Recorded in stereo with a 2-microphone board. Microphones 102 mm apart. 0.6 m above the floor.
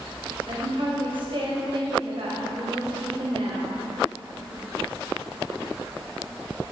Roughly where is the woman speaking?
Right.